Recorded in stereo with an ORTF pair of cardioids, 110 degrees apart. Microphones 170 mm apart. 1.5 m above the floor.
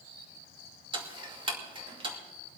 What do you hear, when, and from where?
0.9 s ticking: 30° right, 2.5 m